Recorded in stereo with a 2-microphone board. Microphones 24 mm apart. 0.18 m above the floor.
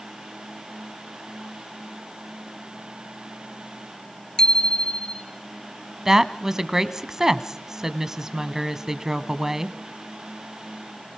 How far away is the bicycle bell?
About 2 m.